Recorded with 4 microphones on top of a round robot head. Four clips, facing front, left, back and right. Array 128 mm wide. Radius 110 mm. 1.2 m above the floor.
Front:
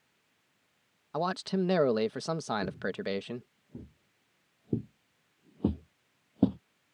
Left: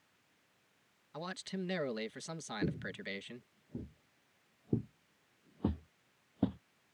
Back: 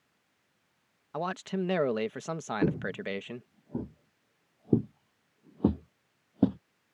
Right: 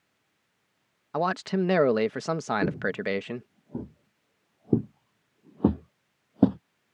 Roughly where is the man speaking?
Right.